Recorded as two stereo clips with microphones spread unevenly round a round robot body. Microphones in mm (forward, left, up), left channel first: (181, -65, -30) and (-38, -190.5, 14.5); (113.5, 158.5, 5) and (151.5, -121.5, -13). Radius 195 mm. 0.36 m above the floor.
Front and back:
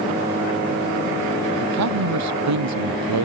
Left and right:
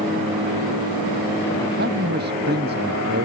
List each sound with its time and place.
1.6 s a man speaking: 150° right